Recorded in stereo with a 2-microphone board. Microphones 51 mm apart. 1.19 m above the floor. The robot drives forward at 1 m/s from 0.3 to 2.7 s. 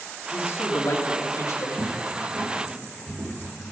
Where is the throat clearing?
I don't hear throat clearing.